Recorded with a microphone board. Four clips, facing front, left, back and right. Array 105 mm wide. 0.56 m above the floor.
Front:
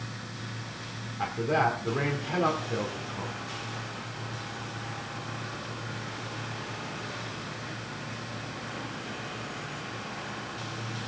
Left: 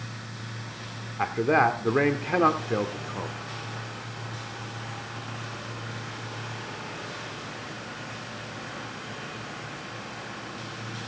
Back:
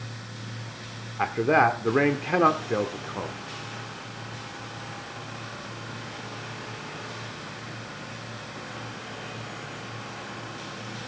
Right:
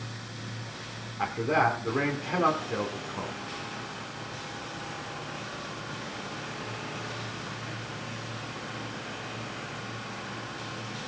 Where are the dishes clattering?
I don't hear dishes clattering.